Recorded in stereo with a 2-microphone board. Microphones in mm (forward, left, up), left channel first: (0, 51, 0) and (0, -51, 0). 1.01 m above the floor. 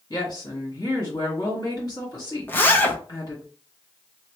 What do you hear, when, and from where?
0.1 s a woman speaking: 40° left (ahead or behind), 1.9 m
2.5 s a zipper: 20° left (ahead or behind), 0.6 m